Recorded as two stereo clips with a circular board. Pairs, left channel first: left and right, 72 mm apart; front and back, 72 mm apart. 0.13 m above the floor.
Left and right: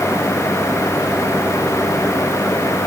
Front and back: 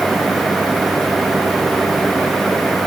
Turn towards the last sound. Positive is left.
No sound to turn to.